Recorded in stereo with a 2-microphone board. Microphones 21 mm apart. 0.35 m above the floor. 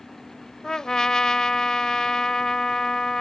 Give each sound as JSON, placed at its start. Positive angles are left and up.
{"t": 0.6, "sound": "a trumpet", "side_deg": 35}